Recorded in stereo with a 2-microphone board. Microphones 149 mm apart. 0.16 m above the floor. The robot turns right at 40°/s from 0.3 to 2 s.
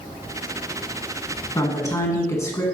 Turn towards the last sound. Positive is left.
turn(degrees=20)  # may be behind; listen again after turning